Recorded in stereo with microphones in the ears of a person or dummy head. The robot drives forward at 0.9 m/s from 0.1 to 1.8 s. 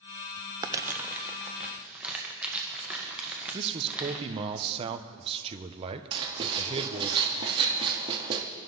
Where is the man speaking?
35° right (ahead or behind), 0.9 m.